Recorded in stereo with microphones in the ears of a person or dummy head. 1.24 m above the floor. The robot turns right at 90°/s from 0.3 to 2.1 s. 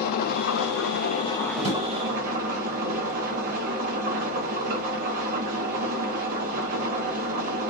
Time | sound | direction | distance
0.0 | an engine running | 65° left | 0.7 m
1.6 | a drawer | 20° right (ahead or behind) | 2.5 m